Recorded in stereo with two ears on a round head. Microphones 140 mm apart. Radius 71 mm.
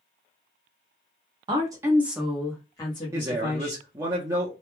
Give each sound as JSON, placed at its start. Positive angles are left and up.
{"t": 1.5, "sound": "a woman speaking", "side_deg": -30, "distance_m": 0.9}
{"t": 3.1, "sound": "a man speaking", "side_deg": -20, "distance_m": 0.7}